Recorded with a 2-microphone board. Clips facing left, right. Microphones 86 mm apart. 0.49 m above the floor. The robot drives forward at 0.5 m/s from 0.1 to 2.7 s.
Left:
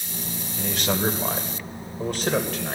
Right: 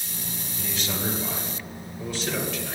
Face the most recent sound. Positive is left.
turn(degrees=50)  # may be behind; listen again after turning